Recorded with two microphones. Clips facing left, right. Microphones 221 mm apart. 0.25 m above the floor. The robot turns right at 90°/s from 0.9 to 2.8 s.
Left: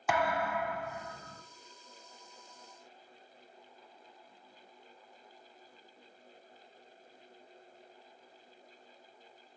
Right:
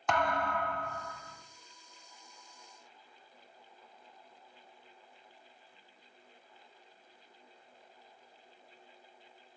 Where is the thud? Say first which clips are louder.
Even; 10° left, 0.7 m; by 1.4 s 55° left, 0.7 m.